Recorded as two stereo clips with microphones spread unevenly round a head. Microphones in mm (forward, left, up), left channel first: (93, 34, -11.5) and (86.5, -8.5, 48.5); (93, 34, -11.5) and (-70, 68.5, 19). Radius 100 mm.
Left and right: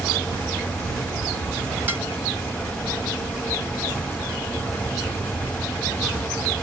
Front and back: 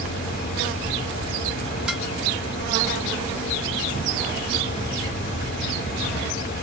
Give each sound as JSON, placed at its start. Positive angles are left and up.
{"t": 1.9, "sound": "dishes clattering", "azimuth_deg": -110}